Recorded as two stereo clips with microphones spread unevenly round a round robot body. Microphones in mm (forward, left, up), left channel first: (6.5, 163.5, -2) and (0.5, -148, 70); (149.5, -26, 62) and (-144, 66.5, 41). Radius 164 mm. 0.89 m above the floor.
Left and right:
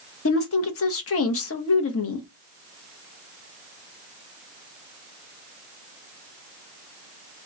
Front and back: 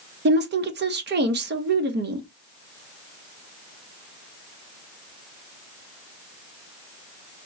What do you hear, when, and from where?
0.2 s a woman speaking: 110° left, 0.8 m